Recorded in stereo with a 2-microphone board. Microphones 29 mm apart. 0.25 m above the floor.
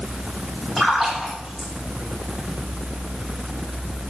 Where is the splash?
Centre (ahead or behind), 9 m.